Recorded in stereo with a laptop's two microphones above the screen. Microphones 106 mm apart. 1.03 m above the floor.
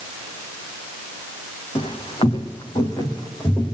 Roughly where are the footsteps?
Left.